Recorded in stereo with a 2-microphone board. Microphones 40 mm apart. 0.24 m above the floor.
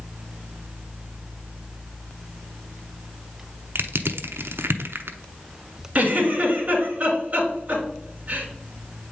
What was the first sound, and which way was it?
Crushing, 70° right (ahead or behind).